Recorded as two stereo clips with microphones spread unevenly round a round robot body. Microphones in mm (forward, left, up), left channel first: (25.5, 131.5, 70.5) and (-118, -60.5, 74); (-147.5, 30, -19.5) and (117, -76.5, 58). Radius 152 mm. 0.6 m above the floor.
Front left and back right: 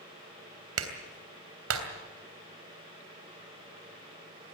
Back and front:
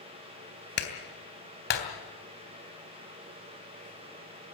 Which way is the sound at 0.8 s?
150° right.